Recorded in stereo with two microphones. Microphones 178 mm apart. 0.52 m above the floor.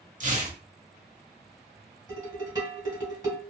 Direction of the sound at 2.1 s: 25° right (ahead or behind).